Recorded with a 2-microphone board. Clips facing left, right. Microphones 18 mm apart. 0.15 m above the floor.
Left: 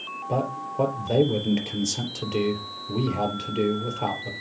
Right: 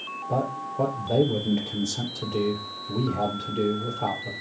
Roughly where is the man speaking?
Left.